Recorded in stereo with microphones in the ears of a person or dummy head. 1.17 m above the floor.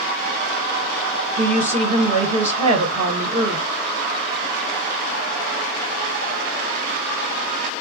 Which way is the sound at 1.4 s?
30° right (ahead or behind).